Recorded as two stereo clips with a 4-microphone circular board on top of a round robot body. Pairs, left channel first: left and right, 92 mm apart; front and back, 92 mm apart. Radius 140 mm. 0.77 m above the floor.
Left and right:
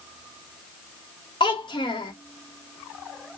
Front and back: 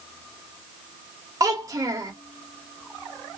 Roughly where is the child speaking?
Behind left.